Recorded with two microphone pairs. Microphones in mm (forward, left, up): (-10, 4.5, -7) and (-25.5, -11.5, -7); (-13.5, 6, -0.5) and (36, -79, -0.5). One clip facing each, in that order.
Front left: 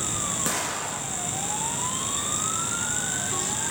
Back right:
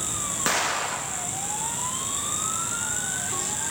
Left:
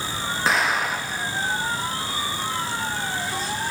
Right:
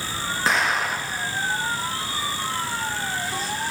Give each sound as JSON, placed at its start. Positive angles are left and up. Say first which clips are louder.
{"t": 0.5, "sound": "an explosion", "louder": "back right 4 dB, even", "azimuth_deg": -150, "distance_m": 0.8}